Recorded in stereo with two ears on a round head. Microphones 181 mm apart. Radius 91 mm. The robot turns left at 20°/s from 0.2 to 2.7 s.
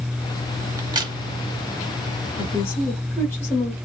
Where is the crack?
15° right (ahead or behind), 1.0 m; by 1.1 s 25° right (ahead or behind), 1.0 m.